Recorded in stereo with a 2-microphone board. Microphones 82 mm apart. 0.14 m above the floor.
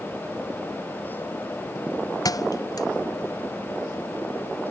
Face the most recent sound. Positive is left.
turn(degrees=50)  # may be behind; listen again after turning